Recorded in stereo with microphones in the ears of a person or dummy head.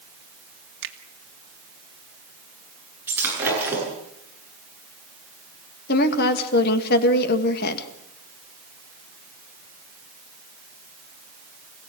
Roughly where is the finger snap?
Right.